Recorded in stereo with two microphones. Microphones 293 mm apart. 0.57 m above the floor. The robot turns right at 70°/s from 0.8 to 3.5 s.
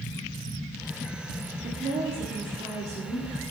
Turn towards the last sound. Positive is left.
turn(degrees=25)